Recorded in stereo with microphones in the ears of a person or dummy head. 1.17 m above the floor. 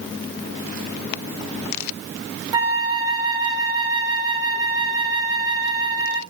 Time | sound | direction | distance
2.5 | a flute | 20° right (ahead or behind) | 1.2 m